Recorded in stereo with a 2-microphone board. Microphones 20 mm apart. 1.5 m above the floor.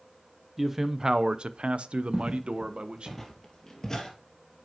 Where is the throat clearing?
No throat clearing in this recording.